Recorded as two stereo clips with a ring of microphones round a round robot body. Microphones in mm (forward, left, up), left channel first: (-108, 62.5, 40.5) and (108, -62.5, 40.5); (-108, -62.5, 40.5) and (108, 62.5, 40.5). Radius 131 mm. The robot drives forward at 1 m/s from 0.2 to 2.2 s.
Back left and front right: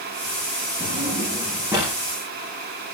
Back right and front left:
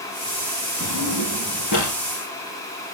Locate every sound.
0.8 s a drawer: 100° right, 6.5 m; by 1.9 s 110° right, 7 m